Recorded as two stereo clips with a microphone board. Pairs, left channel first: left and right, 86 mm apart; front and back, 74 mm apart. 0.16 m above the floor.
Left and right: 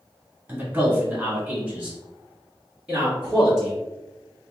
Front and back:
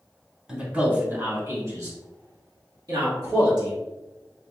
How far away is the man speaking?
About 1.1 m.